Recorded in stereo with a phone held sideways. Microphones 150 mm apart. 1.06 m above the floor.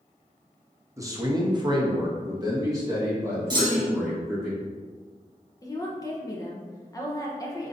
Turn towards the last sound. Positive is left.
turn(degrees=25)  # may be behind; listen again after turning